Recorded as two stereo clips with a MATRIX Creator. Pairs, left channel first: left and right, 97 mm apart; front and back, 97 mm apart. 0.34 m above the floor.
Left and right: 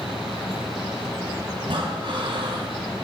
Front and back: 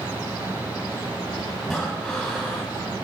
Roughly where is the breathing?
Right.